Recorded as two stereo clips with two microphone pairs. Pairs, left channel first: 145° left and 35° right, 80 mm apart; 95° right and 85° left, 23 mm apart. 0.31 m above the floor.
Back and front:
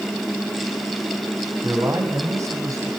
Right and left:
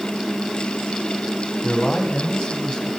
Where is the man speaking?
60° right, 2.5 m.